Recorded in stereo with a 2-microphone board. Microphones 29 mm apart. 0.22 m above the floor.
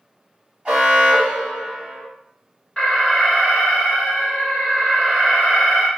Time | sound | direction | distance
0.7 | an alarm | 35° right (ahead or behind) | 1.4 m
2.8 | an alarm | 20° left (ahead or behind) | 1.5 m